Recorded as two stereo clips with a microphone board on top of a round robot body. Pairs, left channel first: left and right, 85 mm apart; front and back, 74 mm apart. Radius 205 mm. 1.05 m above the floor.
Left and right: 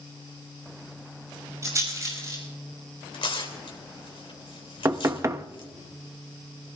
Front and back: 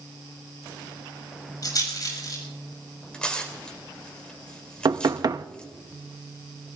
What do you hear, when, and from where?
1.6 s a rattle: 35° right, 5.5 m
3.1 s tearing paper: 80° left, 3 m
4.8 s knocking: 145° right, 0.9 m